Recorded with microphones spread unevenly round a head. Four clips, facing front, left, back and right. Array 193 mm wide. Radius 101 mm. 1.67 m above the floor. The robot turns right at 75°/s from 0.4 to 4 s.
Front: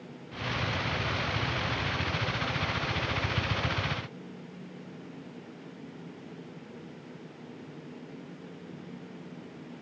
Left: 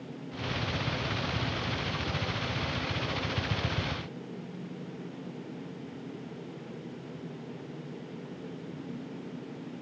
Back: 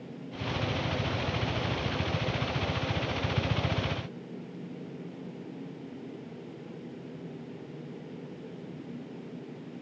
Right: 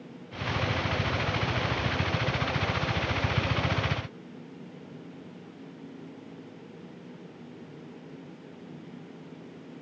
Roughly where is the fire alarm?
No fire alarm in this recording.